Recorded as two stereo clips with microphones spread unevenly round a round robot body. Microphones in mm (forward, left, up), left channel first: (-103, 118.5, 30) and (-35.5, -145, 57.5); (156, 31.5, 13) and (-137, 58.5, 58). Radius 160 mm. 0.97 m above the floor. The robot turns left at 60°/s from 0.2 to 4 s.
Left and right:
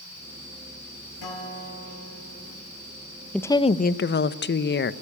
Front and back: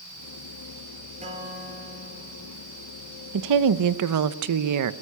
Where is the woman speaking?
170° right, 0.8 m; by 4.9 s 150° left, 0.8 m.